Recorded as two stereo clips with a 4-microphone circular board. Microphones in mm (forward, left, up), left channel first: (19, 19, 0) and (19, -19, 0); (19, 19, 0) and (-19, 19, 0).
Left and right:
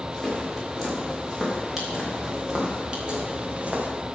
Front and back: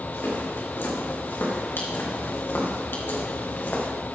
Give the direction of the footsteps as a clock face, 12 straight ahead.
12 o'clock.